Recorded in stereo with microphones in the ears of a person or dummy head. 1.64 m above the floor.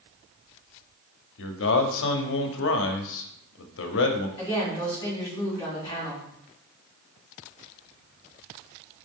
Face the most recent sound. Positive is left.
turn(degrees=15)  # may be behind; listen again after turning